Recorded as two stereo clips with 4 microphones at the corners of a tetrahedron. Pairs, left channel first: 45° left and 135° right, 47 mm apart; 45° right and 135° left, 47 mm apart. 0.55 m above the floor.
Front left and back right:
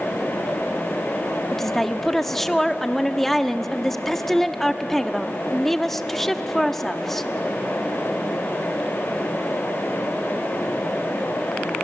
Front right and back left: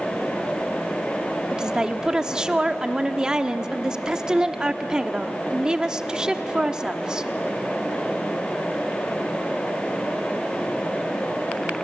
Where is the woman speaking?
115° left, 0.9 m.